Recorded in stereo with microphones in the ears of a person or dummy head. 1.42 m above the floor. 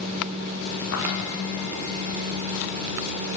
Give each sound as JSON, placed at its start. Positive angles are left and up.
{"t": 0.9, "sound": "footsteps", "side_deg": 80, "distance_m": 8.0}